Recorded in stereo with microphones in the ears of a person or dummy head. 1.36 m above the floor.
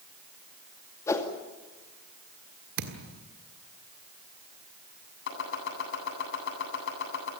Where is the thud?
60° right (ahead or behind), 1.5 m.